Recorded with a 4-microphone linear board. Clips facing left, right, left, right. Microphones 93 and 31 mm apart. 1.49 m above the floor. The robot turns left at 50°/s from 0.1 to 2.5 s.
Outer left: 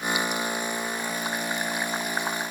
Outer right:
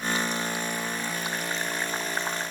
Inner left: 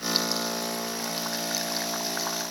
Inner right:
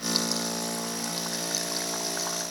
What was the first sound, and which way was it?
Only background noise.